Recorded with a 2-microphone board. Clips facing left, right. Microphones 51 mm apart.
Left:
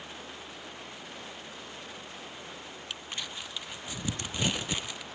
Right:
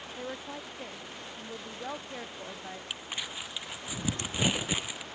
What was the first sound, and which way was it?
A woman speaking, 80° right.